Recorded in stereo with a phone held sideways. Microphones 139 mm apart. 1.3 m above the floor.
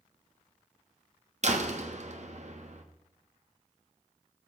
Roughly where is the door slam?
Right.